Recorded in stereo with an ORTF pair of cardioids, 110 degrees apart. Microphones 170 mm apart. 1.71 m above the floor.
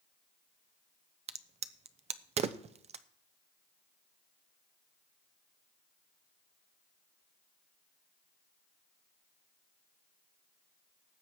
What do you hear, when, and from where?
1.3 s a crack: 40° right, 0.7 m